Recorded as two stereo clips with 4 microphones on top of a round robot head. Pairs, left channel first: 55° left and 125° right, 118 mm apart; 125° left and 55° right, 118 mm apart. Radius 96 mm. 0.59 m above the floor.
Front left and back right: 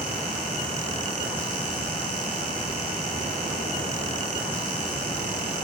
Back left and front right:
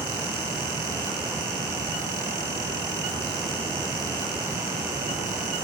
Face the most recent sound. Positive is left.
No sound to turn to.